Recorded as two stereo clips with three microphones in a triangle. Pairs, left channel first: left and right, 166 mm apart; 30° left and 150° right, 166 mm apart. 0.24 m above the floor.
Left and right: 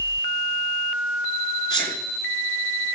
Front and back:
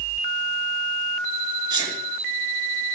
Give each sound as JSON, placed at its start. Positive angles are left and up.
{"t": 1.7, "sound": "a sneeze", "azimuth_deg": 150, "distance_m": 4.5}